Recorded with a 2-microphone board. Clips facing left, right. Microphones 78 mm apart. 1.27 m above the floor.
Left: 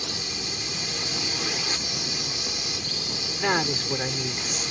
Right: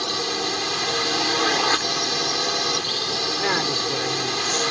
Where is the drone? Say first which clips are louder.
Right 9 dB; 70° right (ahead or behind).